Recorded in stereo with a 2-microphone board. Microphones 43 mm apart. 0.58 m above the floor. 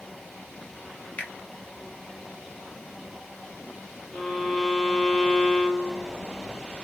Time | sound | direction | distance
1.2 | a finger snap | 40° left (ahead or behind) | 0.7 m
4.1 | a violin | 5° left (ahead or behind) | 0.6 m